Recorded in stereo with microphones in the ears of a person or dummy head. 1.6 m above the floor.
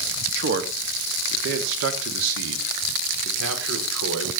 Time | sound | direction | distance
0.3 | a man speaking | 55° right (ahead or behind) | 2.5 m